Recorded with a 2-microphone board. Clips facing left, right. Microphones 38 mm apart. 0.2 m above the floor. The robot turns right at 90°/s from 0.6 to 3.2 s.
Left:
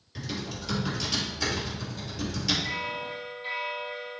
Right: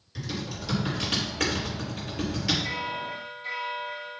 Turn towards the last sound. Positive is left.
turn(degrees=20)